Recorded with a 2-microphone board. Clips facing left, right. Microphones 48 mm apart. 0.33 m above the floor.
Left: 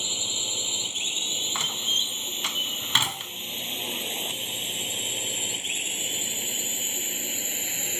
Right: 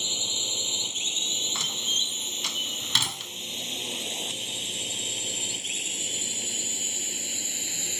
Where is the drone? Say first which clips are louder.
Even; 20° left (ahead or behind); by 8.0 s 30° left (ahead or behind).